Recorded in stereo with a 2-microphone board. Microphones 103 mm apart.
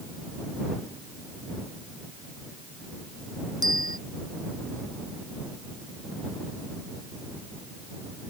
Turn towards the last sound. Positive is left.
turn(degrees=-40)  # may be behind; listen again after turning